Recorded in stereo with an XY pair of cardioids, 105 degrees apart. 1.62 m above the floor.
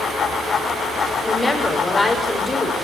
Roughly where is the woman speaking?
Ahead.